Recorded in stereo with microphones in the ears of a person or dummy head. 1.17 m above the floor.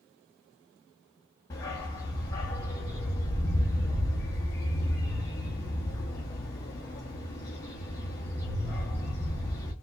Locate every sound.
1.5 s a dog barking: 15° left (ahead or behind), 0.6 m